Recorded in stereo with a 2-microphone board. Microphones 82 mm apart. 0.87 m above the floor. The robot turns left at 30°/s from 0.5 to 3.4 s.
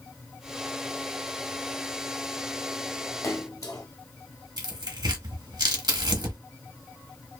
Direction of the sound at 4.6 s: 60° right (ahead or behind).